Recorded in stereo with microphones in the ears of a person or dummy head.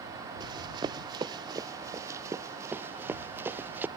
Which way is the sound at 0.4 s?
25° right (ahead or behind).